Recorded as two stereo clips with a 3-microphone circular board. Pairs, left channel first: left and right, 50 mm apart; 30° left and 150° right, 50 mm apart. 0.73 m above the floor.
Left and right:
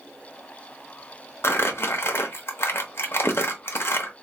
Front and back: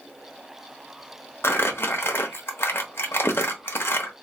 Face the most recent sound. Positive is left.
turn(degrees=60)